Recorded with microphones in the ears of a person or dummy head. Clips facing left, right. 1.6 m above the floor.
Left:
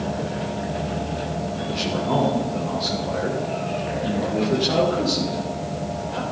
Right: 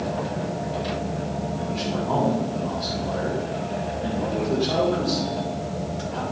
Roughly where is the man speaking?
Centre.